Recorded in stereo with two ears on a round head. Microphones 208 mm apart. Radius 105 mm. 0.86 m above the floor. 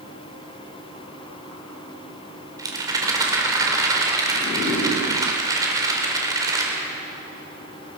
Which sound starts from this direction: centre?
A rattle, at 2.6 s.